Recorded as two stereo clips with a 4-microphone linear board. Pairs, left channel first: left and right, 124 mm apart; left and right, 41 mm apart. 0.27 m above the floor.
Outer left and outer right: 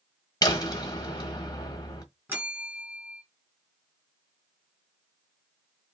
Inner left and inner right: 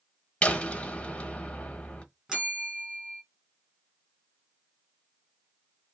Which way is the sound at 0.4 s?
30° left (ahead or behind).